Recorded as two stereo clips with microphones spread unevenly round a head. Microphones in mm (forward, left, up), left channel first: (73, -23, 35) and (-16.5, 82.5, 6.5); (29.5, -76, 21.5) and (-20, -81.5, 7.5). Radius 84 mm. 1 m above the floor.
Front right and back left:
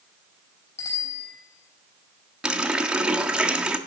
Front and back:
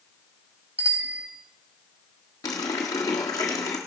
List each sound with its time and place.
0.8 s a bicycle bell: 120° right, 3.5 m
2.4 s a running tap: 45° left, 1.5 m